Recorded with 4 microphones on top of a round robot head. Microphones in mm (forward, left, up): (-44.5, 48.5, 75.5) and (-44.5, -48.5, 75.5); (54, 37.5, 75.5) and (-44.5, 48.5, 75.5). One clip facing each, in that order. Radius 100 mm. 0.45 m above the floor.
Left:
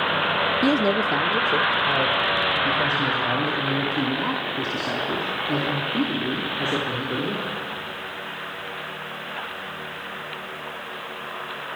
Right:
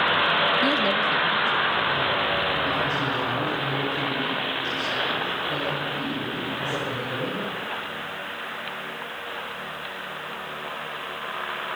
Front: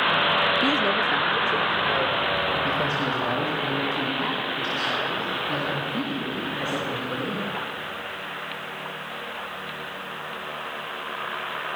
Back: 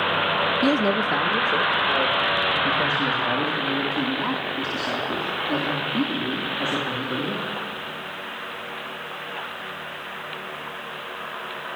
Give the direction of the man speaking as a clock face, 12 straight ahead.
8 o'clock.